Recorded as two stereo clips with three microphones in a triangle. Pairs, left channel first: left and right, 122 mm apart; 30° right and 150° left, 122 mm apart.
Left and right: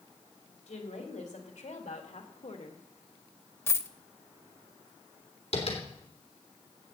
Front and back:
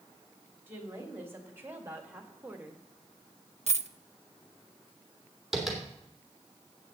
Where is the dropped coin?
155° left, 0.6 m.